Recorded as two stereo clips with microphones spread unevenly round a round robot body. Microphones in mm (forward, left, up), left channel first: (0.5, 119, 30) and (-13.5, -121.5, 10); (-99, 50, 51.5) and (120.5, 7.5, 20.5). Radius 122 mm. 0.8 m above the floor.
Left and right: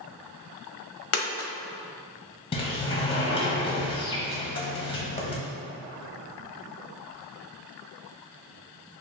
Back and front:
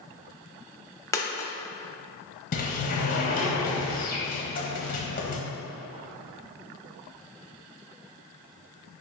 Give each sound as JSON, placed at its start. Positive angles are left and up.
{"t": 1.1, "sound": "a dropped coin", "azimuth_deg": 100, "distance_m": 0.6}
{"t": 2.5, "sound": "a sliding door", "azimuth_deg": 145, "distance_m": 0.9}